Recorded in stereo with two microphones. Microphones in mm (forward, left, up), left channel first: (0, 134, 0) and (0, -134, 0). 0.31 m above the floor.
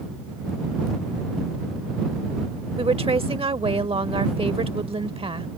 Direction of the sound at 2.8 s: 20° right (ahead or behind).